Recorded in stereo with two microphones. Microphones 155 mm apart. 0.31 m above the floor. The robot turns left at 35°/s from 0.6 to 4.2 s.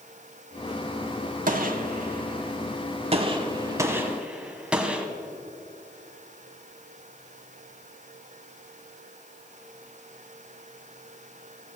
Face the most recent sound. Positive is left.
turn(degrees=-5)  # may be behind; listen again after turning